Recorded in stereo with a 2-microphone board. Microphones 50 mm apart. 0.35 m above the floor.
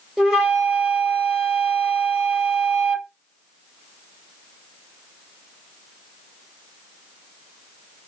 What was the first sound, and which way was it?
A flute, 10° right (ahead or behind).